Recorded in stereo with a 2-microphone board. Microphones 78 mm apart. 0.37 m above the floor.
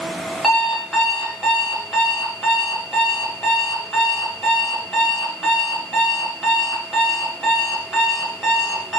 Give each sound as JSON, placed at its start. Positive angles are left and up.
{"t": 0.4, "sound": "an alarm clock", "side_deg": 0, "distance_m": 0.8}